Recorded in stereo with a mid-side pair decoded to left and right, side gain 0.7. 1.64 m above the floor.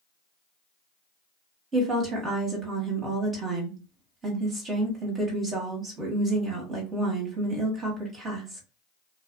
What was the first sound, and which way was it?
A woman speaking, 35° right.